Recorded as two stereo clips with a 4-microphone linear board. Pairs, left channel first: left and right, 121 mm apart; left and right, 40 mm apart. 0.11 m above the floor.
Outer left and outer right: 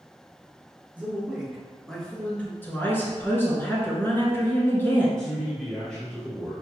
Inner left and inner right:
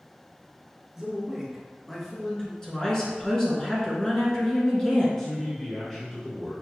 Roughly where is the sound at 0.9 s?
Centre.